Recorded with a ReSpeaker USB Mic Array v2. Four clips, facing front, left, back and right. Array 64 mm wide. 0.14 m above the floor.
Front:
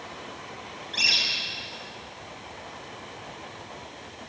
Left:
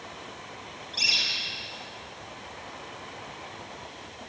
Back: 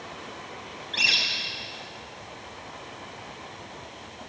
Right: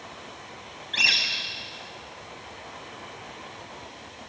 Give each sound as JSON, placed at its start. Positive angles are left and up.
{"t": 0.9, "sound": "a bird", "azimuth_deg": -100, "distance_m": 6.0}